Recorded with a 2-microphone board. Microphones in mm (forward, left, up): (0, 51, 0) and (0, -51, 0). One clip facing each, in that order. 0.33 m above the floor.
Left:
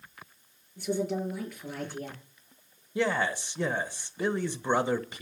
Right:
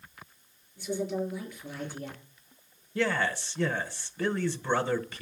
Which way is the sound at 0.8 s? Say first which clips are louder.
Left 1 dB; 55° left (ahead or behind).